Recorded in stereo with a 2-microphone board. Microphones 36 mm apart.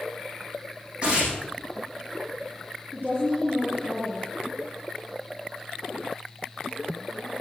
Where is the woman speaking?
35° right (ahead or behind), 5 m.